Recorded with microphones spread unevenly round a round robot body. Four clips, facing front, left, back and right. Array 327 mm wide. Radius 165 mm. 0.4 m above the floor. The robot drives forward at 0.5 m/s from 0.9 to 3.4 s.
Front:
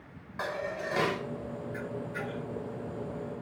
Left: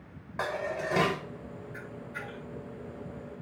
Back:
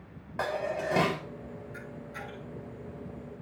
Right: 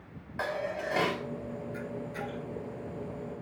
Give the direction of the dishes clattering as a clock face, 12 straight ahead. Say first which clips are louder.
Left 1 dB, back 3 dB; 7 o'clock.